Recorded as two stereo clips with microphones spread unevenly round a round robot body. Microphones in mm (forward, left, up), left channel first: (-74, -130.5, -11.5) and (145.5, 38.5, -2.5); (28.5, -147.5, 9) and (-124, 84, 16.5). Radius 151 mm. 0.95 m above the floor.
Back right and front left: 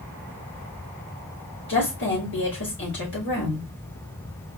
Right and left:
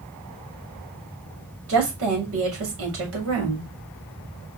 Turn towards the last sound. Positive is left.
turn(degrees=165)